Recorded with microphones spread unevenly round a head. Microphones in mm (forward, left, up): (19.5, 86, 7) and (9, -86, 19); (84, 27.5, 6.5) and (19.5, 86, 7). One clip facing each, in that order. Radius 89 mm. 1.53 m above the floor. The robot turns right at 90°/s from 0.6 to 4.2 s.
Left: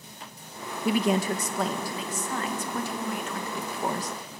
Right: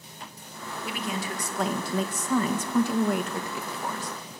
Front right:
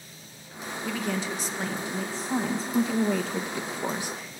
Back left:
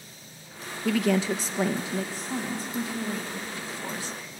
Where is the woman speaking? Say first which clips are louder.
Left 9 dB, back left 7 dB; 105° left, 1.6 m; by 4.4 s 50° left, 1.6 m.